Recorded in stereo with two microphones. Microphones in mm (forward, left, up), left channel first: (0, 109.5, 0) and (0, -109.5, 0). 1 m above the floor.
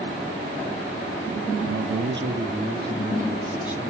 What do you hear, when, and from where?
1.7 s a man speaking: 80° right, 1.1 m; by 3.9 s 5° right (ahead or behind), 3.5 m